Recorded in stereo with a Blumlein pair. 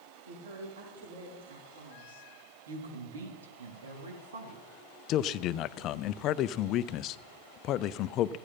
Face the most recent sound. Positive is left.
turn(degrees=35)